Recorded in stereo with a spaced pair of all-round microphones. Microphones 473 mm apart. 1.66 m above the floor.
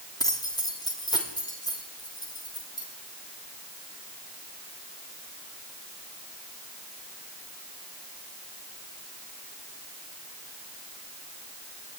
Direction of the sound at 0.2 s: 10° left (ahead or behind).